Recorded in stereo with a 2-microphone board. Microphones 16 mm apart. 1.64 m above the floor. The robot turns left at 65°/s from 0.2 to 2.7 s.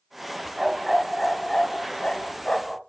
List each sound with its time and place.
0.6 s a dog barking: 150° right, 3 m; by 2.8 s 75° left, 3 m